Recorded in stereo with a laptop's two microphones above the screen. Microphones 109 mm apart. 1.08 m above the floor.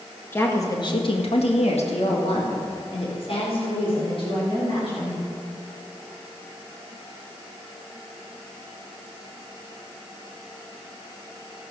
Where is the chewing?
No chewing in this recording.